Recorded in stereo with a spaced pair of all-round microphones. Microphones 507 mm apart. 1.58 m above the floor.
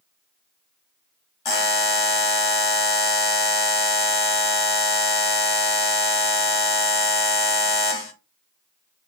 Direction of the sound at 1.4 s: 50° left (ahead or behind).